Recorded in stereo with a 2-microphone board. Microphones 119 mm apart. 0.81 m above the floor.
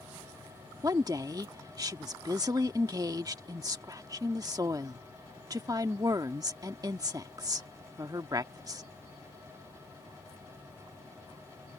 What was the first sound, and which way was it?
A woman speaking, 30° right (ahead or behind).